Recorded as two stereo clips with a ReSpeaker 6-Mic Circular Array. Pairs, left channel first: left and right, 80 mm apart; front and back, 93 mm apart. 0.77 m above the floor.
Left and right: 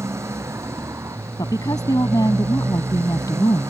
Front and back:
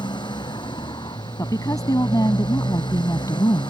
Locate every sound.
0.0 s a motorcycle: 35° right
1.4 s a woman speaking: 50° left